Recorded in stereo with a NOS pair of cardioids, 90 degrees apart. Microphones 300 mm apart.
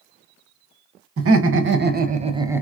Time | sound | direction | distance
1.2 | laughter | 55° right | 1.3 m